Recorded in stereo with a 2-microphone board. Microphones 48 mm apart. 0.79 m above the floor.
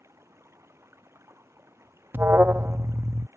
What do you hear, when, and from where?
0.0 s running water: 65° right (ahead or behind)
2.1 s an alarm: 45° right (ahead or behind)